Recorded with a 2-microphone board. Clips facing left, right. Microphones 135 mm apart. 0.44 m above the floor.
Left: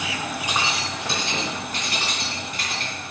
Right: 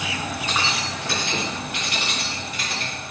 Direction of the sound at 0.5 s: 15° left (ahead or behind).